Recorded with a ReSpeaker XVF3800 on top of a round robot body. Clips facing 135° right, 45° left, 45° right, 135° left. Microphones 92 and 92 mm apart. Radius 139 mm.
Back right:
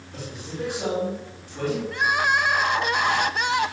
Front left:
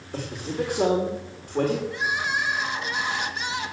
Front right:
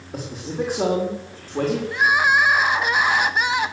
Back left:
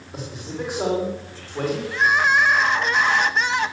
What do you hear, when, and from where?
0.1 s a man speaking: straight ahead, 3.5 m
1.9 s crying: 125° right, 0.8 m